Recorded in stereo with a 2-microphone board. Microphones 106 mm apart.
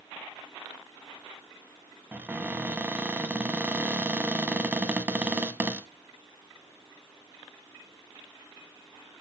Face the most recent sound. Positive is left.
turn(degrees=-15)  # may be behind; listen again after turning